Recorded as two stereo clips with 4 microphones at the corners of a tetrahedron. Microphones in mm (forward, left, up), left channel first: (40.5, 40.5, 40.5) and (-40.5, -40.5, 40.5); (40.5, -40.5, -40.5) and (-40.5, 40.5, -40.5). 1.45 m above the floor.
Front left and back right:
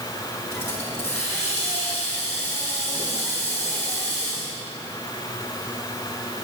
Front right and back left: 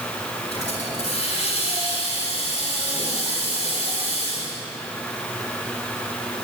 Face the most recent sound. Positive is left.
turn(degrees=-20)